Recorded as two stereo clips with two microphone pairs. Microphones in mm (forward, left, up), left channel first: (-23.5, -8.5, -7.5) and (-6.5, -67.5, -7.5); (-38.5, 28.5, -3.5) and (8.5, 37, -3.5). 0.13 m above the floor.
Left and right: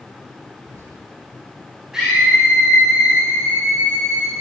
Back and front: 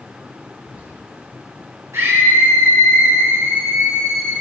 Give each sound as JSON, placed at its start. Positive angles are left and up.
{"t": 0.6, "sound": "whispering", "azimuth_deg": -50, "distance_m": 9.5}
{"t": 1.9, "sound": "a scream", "azimuth_deg": 5, "distance_m": 8.0}